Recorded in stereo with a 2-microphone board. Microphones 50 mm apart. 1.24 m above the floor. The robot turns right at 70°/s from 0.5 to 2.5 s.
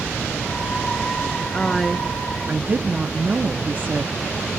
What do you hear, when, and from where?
1.5 s a woman speaking: 155° left, 0.8 m; by 4.5 s 135° right, 0.8 m